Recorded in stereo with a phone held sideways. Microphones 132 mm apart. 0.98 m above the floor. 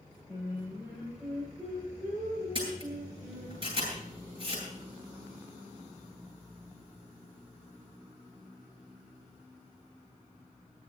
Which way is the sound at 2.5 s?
35° right (ahead or behind).